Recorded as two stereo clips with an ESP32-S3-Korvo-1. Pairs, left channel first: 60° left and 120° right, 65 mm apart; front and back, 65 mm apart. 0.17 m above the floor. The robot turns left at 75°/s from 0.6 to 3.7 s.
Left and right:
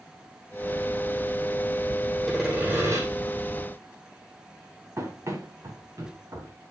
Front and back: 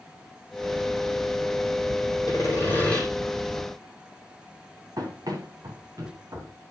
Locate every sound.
2.3 s sawing: 25° right, 7.5 m; by 3.0 s 85° right, 7.5 m
5.0 s running footsteps: 160° right, 5.5 m; by 6.5 s 150° right, 7.5 m